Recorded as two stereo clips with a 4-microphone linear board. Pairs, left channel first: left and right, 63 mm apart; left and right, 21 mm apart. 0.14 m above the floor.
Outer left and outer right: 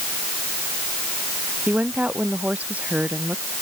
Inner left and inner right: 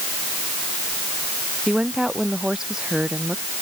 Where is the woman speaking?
25° right (ahead or behind).